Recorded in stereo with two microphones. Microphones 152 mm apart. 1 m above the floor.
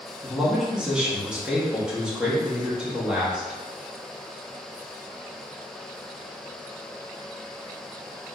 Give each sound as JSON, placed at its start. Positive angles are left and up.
{"t": 0.2, "sound": "a man speaking", "side_deg": -5, "distance_m": 1.3}